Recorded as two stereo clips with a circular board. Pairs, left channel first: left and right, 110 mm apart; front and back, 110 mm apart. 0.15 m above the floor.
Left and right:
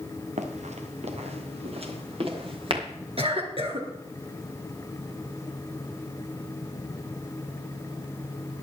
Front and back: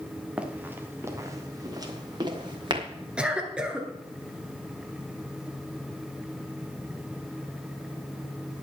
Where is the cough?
100° right, 2.5 m.